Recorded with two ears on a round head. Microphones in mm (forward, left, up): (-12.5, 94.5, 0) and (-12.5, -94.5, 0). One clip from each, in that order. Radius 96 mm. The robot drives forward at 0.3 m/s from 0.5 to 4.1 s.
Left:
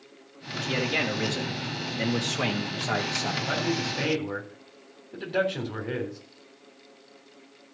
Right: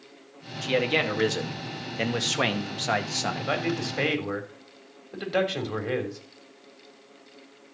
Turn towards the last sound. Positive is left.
turn(degrees=-40)  # may be behind; listen again after turning